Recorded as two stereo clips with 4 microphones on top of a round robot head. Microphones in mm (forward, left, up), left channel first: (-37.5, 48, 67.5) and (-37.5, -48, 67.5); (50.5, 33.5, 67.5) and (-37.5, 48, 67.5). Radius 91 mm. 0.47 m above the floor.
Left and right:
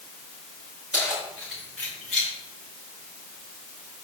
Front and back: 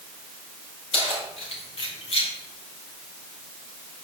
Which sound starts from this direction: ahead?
Keys jangling, at 0.9 s.